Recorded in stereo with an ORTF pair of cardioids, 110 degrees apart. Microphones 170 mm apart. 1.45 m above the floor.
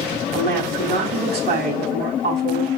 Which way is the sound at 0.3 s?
65° right.